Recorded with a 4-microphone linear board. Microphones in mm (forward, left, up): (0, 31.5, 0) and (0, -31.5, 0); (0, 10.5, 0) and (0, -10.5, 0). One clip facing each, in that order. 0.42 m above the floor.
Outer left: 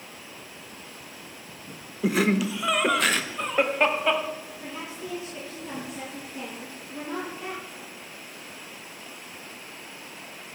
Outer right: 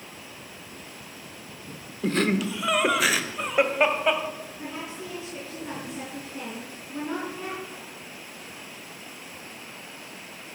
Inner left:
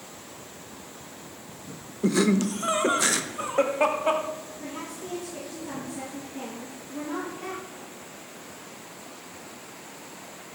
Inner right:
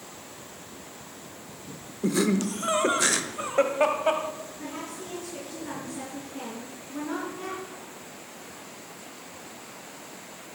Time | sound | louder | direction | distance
2.0 | laughter | outer left 1 dB, inner left 2 dB | 10° left (ahead or behind) | 0.7 m
4.6 | a woman speaking | outer right 1 dB, even | 75° right (ahead or behind) | 6 m